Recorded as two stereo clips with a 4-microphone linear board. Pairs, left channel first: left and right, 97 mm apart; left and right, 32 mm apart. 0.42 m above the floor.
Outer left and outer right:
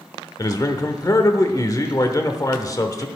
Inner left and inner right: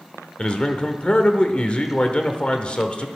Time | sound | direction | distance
0.4 | a man speaking | 35° left (ahead or behind) | 0.9 m